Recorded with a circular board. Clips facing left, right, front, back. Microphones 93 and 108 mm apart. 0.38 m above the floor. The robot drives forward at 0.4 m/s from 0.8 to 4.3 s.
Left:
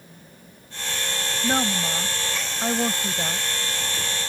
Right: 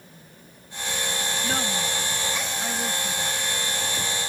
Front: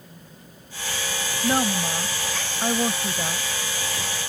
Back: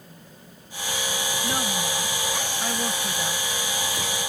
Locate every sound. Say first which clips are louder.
1.4 s a woman speaking: left 7 dB, front 8 dB; 35° left; by 4.3 s 75° left